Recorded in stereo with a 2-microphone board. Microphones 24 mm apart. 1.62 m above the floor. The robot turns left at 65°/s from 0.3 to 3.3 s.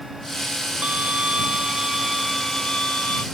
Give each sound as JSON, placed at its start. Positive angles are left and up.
{"t": 0.8, "sound": "a violin", "azimuth_deg": -85}